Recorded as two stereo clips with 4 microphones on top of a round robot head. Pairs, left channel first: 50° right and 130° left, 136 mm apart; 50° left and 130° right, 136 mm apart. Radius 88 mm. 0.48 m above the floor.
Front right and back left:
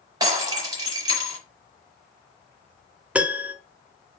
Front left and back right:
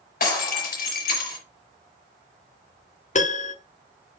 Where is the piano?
50° left, 1.2 m.